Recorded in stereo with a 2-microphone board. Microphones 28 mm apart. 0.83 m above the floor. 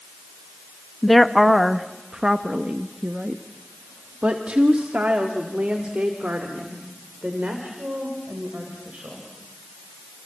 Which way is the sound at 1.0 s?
5° left (ahead or behind).